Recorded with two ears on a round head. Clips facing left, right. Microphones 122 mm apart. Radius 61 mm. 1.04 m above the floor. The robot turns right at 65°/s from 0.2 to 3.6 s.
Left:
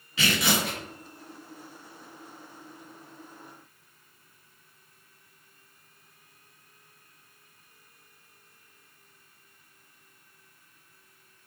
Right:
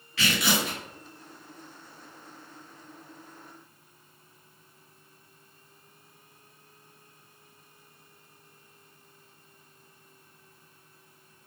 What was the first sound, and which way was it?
Tearing paper, 15° left.